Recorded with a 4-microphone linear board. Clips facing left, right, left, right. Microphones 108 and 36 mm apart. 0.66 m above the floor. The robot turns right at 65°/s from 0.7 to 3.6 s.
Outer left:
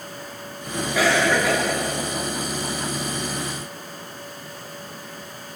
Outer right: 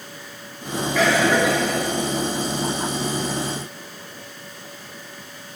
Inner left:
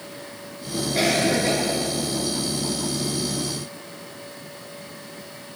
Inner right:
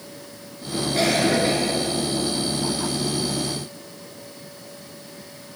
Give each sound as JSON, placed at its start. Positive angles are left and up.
{"t": 0.9, "sound": "a cough", "azimuth_deg": 170, "distance_m": 8.0}